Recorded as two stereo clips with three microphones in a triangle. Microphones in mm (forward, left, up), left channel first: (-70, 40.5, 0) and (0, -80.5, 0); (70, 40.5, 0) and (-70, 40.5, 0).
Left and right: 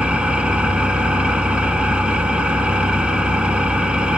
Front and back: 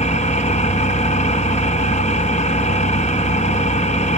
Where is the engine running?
20° left, 1.0 m.